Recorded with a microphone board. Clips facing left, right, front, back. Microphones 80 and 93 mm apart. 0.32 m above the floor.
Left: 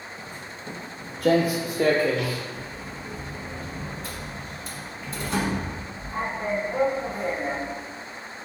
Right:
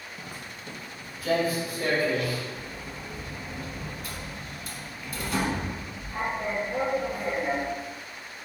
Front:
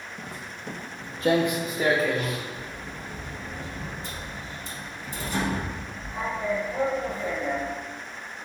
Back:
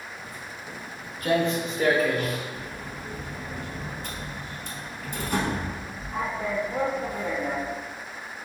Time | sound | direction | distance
0.2 | footsteps | 20° right | 0.7 m
2.5 | a sliding door | 150° left | 1.0 m